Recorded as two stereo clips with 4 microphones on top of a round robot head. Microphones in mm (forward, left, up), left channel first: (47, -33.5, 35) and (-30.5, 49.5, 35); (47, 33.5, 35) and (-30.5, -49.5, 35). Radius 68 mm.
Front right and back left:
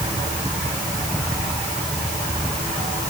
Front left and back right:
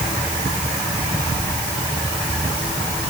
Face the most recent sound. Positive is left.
No sound to turn to.